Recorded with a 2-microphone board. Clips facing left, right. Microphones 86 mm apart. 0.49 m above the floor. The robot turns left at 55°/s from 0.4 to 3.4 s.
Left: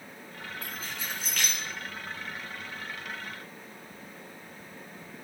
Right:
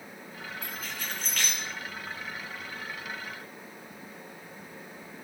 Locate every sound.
0.6 s keys jangling: 40° left (ahead or behind), 4 m; by 1.6 s 10° right (ahead or behind), 4 m